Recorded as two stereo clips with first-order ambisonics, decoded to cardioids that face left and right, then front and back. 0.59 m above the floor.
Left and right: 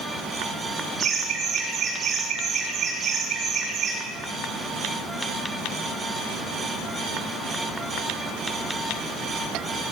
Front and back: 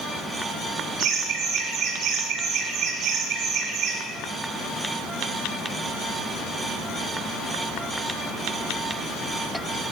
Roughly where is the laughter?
Behind.